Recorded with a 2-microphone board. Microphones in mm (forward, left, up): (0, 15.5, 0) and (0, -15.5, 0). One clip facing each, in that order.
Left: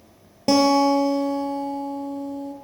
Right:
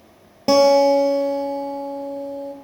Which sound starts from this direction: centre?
A guitar, at 0.5 s.